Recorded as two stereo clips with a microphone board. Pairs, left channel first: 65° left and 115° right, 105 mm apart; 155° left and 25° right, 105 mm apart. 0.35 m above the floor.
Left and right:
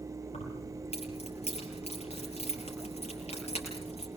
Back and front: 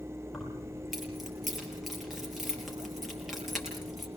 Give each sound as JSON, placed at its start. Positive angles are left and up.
{"t": 0.3, "sound": "keys jangling", "azimuth_deg": 65, "distance_m": 6.0}